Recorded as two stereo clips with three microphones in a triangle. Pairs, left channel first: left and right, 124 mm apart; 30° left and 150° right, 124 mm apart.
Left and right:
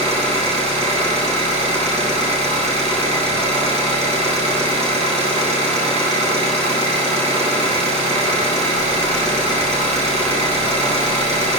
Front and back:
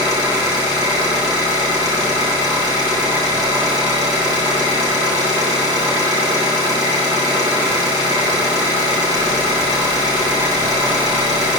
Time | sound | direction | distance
0.0 | an engine running | 95° right | 1.9 m